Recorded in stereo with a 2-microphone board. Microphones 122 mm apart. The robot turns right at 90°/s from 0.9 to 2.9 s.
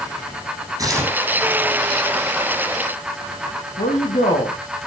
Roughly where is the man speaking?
Left.